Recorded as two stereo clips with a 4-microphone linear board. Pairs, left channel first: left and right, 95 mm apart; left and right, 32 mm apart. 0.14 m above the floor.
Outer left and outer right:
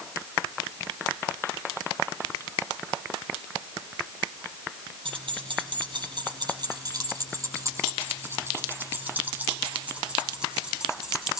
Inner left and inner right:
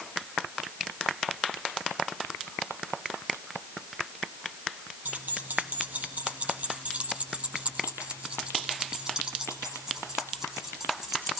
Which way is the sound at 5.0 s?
65° right (ahead or behind).